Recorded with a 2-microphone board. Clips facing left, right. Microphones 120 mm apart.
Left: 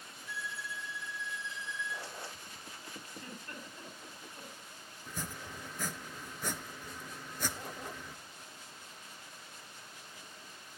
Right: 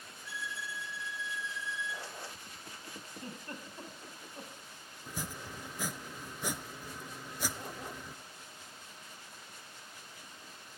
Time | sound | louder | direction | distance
0.2 | a violin | even | 75° right (ahead or behind) | 2 m
3.1 | a giggle | right 4 dB | 30° right (ahead or behind) | 6.5 m
5.1 | chopping | right 1 dB | 10° right (ahead or behind) | 0.9 m